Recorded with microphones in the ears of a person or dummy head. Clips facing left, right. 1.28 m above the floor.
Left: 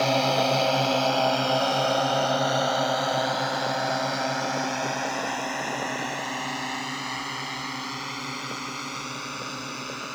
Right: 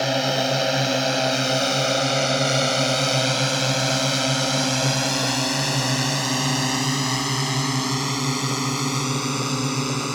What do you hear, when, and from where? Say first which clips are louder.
0.0 s a drone: even; 15° right (ahead or behind); by 10.2 s 85° right